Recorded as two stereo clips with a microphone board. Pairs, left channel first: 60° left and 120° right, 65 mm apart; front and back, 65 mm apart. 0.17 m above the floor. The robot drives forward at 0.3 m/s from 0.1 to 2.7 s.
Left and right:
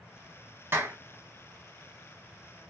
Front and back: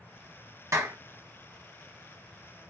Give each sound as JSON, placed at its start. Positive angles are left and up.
{"t": 0.7, "sound": "a clap", "azimuth_deg": -160, "distance_m": 2.0}